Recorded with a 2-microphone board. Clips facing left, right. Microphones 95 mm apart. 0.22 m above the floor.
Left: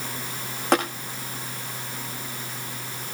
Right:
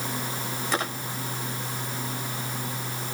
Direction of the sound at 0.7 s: 65° left (ahead or behind).